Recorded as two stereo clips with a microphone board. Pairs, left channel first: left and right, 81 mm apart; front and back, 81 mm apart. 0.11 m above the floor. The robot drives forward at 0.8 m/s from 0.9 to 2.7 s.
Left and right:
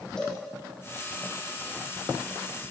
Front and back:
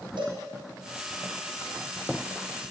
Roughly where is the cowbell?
Behind.